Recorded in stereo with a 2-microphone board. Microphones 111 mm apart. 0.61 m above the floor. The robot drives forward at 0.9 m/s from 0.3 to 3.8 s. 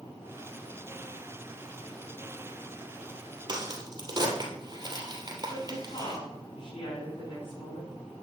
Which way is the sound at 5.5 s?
45° left (ahead or behind).